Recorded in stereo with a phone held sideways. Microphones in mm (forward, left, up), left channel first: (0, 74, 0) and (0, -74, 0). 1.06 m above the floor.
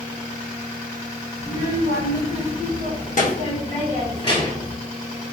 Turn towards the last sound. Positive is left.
turn(degrees=30)  # may be behind; listen again after turning